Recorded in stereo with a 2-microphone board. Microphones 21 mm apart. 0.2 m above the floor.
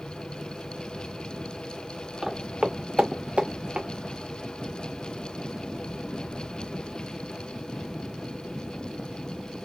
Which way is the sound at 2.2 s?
25° right (ahead or behind).